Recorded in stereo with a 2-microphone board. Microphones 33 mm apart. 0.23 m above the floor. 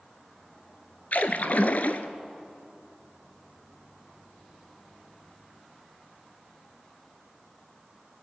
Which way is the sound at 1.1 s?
55° left (ahead or behind).